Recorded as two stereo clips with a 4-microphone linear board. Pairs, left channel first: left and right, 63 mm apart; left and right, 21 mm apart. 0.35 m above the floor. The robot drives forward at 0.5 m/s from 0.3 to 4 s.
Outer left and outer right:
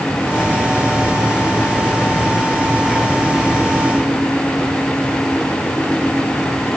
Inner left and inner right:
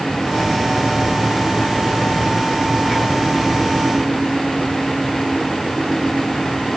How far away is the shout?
I don't hear a shout.